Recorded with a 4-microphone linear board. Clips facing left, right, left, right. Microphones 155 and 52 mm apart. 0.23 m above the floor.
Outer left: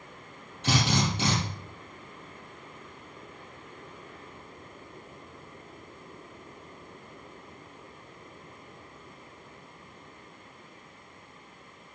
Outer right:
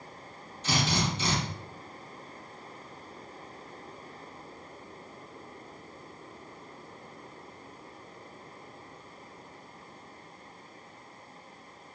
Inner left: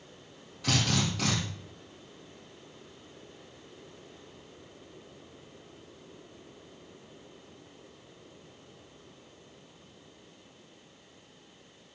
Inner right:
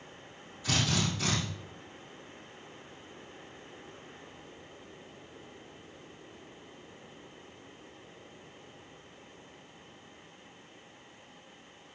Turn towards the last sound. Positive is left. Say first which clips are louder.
# outer left 3 dB, inner left 2 dB
turn(degrees=65)  # may be behind; listen again after turning